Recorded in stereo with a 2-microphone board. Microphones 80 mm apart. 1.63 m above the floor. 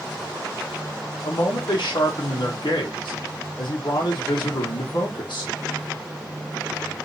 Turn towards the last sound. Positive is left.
turn(degrees=70)  # may be behind; listen again after turning